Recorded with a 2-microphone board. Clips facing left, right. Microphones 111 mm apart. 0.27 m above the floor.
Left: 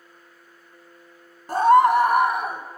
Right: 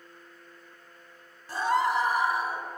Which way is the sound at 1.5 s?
55° left (ahead or behind).